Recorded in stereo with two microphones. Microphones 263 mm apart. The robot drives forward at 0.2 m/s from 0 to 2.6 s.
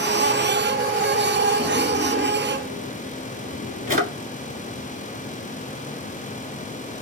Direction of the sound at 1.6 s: 35° right (ahead or behind).